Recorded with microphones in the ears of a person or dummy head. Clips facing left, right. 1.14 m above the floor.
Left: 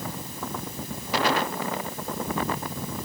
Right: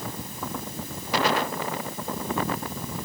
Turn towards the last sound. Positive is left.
No sound to turn to.